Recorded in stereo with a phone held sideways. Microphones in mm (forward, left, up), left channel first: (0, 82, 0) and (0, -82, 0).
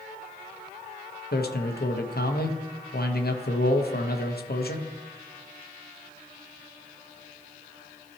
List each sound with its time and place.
1.3 s a man speaking: 75° left (ahead or behind), 0.9 m